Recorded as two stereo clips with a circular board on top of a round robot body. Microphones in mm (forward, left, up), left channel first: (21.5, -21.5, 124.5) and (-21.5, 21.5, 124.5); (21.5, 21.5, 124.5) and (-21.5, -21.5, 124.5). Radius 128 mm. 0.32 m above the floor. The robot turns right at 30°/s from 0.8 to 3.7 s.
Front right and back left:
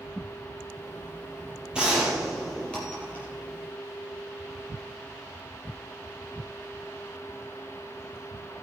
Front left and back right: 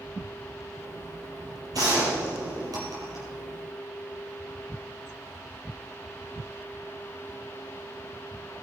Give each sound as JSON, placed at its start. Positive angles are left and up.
{"t": 1.7, "sound": "a gunshot", "azimuth_deg": -150, "distance_m": 6.0}